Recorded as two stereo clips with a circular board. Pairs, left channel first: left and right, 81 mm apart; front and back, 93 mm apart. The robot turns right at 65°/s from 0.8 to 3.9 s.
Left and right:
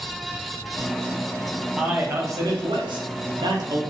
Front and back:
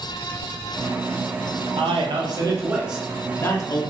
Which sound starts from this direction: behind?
A man speaking, at 1.8 s.